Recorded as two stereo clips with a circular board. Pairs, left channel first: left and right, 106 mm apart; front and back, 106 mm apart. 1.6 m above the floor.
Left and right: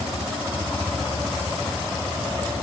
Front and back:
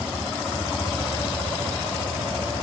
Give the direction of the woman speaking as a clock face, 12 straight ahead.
No woman speaking in this recording.